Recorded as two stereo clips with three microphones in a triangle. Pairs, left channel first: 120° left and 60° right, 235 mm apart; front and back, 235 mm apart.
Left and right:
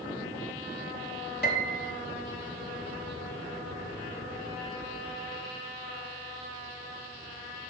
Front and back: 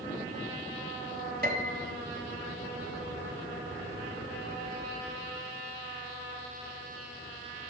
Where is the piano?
145° left, 1.4 m.